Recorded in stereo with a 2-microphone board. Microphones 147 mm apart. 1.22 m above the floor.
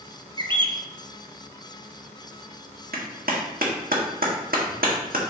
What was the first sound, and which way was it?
A bird, 35° right (ahead or behind).